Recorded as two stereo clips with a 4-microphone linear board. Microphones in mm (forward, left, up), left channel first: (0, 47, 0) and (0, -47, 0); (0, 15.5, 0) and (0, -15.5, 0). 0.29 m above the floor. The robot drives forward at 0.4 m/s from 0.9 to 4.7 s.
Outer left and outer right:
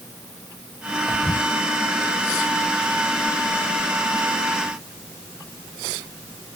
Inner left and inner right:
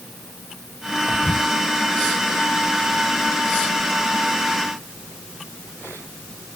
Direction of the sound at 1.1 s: 20° left (ahead or behind).